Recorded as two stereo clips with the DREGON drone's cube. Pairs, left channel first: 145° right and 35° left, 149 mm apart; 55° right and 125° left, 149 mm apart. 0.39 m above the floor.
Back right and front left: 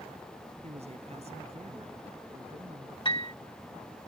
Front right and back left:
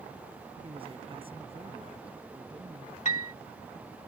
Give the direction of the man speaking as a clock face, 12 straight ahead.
9 o'clock.